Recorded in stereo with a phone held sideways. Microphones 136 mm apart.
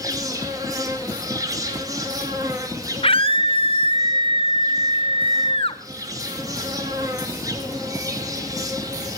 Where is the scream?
40° left (ahead or behind), 0.9 m.